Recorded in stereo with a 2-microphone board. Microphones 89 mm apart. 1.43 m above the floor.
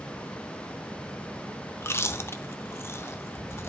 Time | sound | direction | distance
1.8 | chewing | 30° left (ahead or behind) | 0.7 m